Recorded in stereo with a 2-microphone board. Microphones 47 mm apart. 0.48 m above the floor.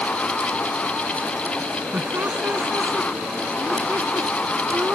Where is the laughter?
50° right (ahead or behind).